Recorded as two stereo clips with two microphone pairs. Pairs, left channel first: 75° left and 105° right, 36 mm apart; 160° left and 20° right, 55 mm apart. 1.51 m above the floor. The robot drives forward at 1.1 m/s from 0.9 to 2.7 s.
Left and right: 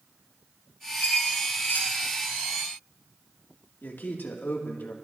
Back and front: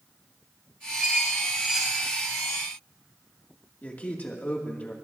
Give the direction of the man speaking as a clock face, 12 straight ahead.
9 o'clock.